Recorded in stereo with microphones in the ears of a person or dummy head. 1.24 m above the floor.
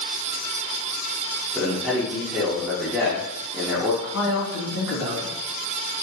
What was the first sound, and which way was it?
A man speaking, 5° right (ahead or behind).